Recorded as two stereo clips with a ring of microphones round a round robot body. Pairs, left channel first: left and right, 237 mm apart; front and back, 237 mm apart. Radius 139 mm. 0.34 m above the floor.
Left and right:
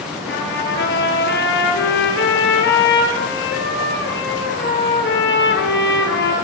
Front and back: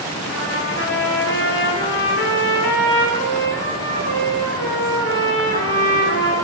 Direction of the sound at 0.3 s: 50° left.